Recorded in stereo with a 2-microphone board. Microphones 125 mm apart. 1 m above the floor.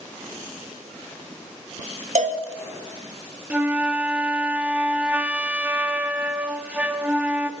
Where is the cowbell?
65° right (ahead or behind), 1.7 m.